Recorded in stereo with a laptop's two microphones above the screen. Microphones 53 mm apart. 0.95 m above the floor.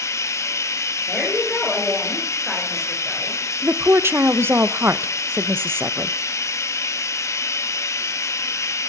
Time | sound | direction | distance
0.0 | running water | 75° left (ahead or behind) | 0.8 m
1.1 | a woman speaking | centre (ahead or behind) | 3.5 m
3.6 | a woman speaking | 50° right (ahead or behind) | 0.5 m